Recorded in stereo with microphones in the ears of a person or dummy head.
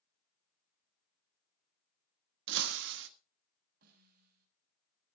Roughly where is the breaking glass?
Right.